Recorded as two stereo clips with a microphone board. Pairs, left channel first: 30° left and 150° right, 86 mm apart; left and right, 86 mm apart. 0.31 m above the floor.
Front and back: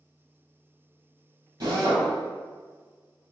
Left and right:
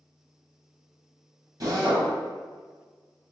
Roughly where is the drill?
Behind right.